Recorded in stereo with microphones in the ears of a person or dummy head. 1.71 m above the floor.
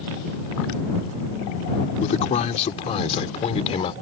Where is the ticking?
I don't hear ticking.